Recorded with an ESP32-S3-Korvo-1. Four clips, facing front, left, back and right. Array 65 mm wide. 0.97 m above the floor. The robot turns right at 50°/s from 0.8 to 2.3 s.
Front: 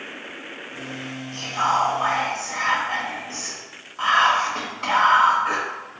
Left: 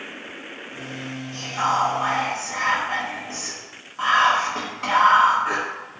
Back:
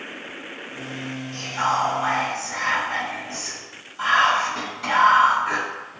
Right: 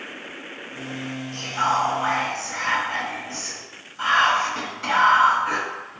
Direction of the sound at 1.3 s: 10° right.